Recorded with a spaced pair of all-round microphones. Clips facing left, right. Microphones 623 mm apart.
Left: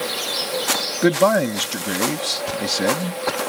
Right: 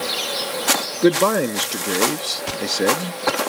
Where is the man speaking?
15° left (ahead or behind), 0.6 m.